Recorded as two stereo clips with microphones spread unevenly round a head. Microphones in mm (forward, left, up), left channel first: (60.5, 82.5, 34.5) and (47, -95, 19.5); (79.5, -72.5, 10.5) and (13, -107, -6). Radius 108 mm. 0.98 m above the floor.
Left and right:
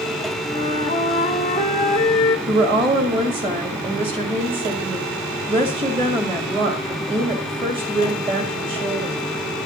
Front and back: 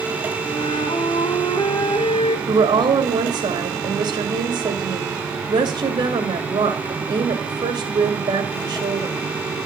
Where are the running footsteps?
I don't hear running footsteps.